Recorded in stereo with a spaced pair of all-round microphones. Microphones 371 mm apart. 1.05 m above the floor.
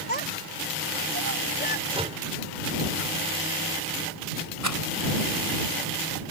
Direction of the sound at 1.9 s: 15° right (ahead or behind).